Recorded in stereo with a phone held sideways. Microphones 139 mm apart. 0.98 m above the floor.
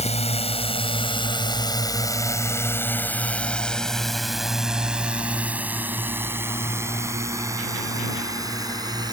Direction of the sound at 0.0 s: 50° left (ahead or behind).